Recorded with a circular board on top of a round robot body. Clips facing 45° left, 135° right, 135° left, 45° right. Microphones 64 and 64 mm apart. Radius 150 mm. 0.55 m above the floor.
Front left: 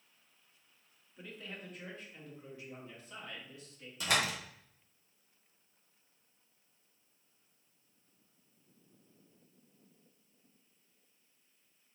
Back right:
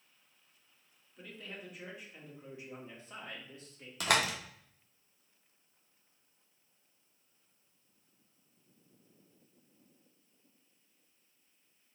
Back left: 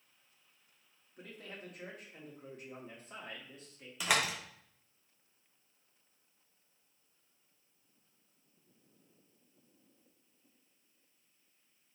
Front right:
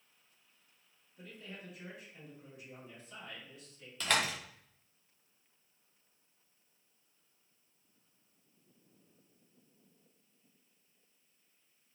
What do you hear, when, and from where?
1.2 s a man speaking: 130° left, 1.7 m; by 3.9 s 175° right, 1.8 m
4.0 s a door slam: 145° right, 1.1 m